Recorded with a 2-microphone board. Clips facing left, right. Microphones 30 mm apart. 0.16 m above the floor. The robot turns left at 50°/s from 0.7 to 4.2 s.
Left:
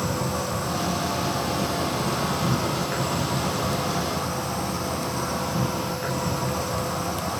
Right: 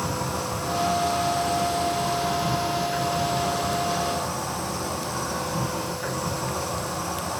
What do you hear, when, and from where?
0.0 s an insect: 170° right, 3.5 m; by 7.4 s 15° left, 3.5 m